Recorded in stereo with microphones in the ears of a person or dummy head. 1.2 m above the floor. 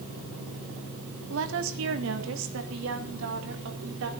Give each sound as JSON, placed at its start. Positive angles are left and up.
{"t": 1.3, "sound": "a woman speaking", "side_deg": -65, "distance_m": 2.0}